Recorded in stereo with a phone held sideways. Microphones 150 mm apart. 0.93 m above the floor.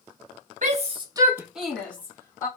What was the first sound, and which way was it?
A shout, 55° right (ahead or behind).